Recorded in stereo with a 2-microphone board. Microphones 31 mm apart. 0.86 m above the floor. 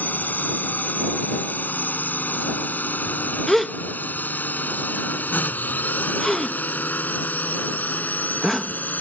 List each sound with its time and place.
0.0 s a drone: 80° left
3.5 s a gasp: 10° left (ahead or behind)